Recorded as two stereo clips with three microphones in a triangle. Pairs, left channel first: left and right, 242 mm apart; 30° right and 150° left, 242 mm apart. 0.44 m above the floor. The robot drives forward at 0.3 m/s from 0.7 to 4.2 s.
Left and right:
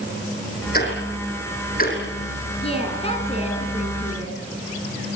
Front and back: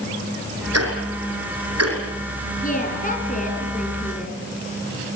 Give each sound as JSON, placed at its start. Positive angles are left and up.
{"t": 0.7, "sound": "ticking", "azimuth_deg": 140, "distance_m": 7.5}
{"t": 2.6, "sound": "a woman speaking", "azimuth_deg": 25, "distance_m": 5.5}